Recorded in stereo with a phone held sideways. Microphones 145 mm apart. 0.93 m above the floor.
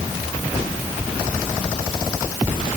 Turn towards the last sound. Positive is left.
No sound to turn to.